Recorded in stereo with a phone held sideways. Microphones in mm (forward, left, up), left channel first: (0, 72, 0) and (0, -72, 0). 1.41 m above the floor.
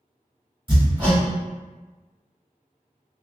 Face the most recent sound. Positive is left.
turn(degrees=-35)  # may be behind; listen again after turning